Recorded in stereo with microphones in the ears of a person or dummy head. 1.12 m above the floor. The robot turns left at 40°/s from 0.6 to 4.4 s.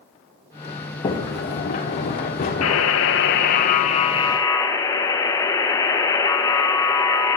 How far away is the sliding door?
About 0.8 m.